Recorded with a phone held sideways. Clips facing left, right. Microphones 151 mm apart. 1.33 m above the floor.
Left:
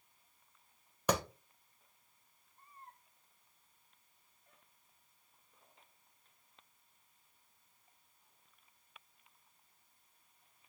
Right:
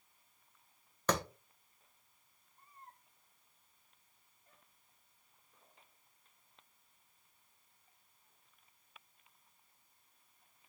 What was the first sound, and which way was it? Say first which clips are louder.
A clap: left 1 dB; 10° left (ahead or behind).